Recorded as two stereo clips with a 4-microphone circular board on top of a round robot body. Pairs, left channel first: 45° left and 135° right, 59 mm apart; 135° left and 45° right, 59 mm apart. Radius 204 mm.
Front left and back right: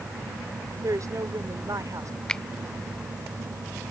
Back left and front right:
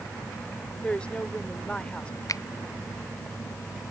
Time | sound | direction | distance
0.8 | a woman speaking | 155° right | ?
2.3 | a finger snap | 120° left | ?